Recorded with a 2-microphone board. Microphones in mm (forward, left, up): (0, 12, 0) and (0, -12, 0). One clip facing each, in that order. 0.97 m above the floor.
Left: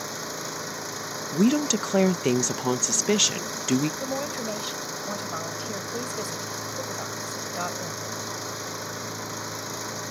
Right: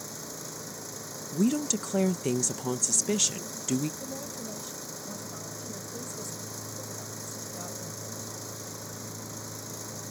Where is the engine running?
40° left (ahead or behind).